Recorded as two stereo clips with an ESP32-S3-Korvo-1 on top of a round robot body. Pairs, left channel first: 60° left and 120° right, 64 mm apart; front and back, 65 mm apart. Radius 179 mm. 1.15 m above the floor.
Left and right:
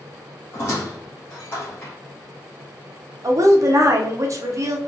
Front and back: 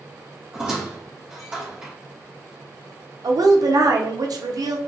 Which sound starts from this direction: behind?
A woman speaking, at 3.2 s.